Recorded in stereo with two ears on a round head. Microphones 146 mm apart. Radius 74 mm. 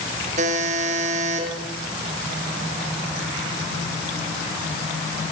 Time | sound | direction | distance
0.4 | a buzzer | 50° right (ahead or behind) | 3.5 m